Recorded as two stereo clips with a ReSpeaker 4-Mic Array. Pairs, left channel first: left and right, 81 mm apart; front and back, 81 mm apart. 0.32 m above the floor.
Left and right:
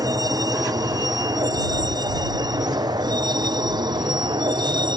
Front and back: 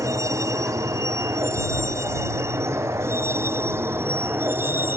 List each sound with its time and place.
0.0 s a vehicle: 130° right; by 5.0 s 115° right